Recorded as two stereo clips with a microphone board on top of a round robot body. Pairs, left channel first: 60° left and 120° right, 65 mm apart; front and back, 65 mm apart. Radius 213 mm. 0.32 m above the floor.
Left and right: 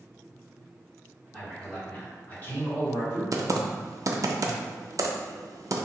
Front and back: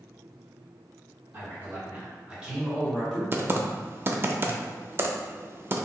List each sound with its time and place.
1.3 s a man speaking: 135° left, 1.8 m; by 3.2 s 85° left, 1.8 m
3.3 s typing on a keyboard: 135° right, 0.5 m